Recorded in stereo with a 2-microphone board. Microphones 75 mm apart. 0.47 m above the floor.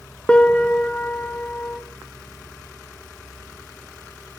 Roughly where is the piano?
Centre.